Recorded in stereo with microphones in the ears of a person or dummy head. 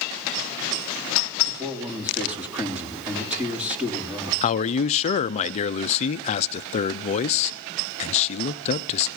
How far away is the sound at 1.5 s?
About 3 m.